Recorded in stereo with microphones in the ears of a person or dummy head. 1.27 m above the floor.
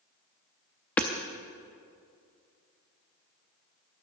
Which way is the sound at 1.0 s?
10° left (ahead or behind).